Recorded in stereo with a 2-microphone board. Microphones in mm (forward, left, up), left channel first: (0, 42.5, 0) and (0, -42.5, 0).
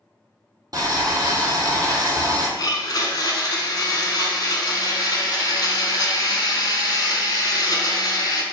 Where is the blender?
55° left (ahead or behind), 0.6 m.